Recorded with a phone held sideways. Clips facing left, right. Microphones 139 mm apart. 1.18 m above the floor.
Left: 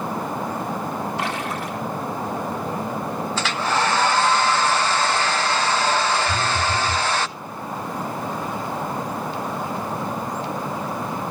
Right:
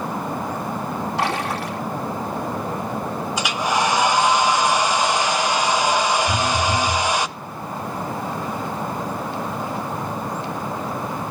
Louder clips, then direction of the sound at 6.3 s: Right 2 dB; 70° right (ahead or behind).